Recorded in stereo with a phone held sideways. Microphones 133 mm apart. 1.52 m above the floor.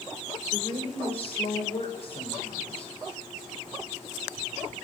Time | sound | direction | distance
0.5 | a woman speaking | 45° left (ahead or behind) | 6 m